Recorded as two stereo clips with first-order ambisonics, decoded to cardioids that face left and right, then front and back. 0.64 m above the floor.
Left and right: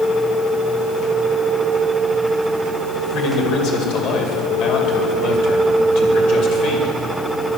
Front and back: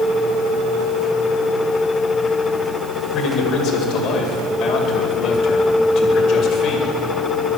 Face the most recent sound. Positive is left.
turn(degrees=55)